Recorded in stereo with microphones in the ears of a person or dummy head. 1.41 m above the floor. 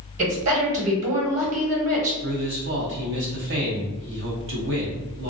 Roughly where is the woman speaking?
Right.